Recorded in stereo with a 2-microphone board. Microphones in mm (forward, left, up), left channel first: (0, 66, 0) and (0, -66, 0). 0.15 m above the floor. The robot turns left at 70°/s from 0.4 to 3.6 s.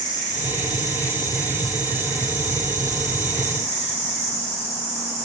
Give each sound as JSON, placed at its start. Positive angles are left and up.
{"t": 0.0, "sound": "an insect", "azimuth_deg": 95, "distance_m": 7.0}